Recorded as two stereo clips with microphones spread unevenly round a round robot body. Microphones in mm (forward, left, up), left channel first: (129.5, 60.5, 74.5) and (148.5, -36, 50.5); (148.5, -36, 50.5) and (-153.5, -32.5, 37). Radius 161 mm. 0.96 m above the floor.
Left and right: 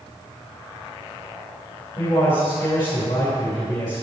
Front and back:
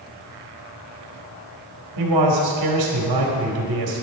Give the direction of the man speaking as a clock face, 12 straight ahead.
6 o'clock.